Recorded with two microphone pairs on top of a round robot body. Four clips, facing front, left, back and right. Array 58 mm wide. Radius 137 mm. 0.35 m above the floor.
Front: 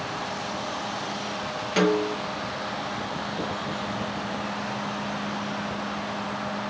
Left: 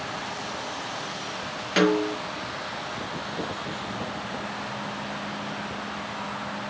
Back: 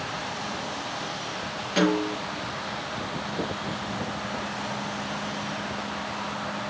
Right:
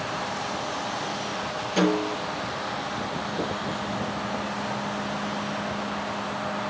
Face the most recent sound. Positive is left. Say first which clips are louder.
# left 2 dB, front 1 dB
turn(degrees=80)